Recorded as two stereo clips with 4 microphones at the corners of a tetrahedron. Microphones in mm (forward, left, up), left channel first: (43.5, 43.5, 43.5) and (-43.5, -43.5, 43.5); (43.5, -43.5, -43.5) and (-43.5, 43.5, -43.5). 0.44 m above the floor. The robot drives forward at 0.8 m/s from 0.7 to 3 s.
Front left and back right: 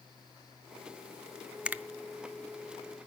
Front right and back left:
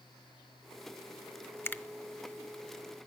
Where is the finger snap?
65° right, 0.5 m; by 1.8 s 110° right, 0.5 m.